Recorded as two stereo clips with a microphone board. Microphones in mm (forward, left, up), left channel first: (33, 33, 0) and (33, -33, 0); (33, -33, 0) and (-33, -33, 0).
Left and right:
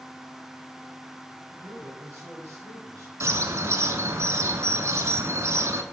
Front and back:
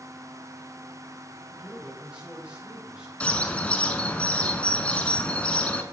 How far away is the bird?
About 0.7 m.